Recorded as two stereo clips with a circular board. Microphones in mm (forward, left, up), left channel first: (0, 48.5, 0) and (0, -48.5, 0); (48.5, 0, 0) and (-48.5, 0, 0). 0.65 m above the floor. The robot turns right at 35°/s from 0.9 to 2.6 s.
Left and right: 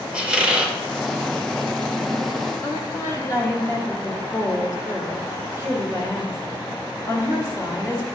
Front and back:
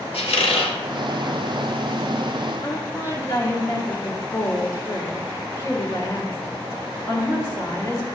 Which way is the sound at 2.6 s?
45° left.